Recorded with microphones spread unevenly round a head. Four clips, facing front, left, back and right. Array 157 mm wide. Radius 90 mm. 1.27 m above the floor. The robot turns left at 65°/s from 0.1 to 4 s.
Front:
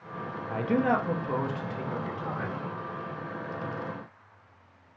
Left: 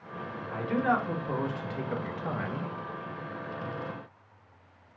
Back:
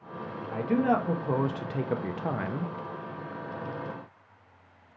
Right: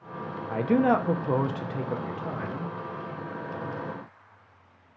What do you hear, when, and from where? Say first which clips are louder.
0.5 s a man speaking: right 5 dB, even; 65° right, 0.5 m; by 2.7 s 155° left, 0.5 m